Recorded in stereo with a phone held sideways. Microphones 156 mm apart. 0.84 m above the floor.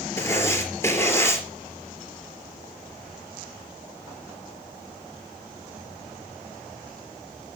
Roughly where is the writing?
Centre.